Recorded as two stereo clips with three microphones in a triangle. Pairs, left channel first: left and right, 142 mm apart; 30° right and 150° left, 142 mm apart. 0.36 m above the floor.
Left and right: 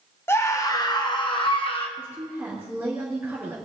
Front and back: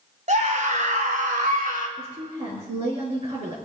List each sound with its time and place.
0.3 s a scream: 160° left, 1.6 m; by 1.9 s 135° left, 3.5 m
2.0 s a woman speaking: 165° right, 5 m